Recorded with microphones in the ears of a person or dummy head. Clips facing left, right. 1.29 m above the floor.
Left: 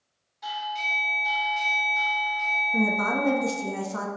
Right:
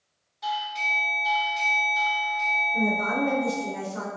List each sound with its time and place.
0.4 s a doorbell: centre (ahead or behind), 1.0 m
2.7 s a woman speaking: 80° left, 0.5 m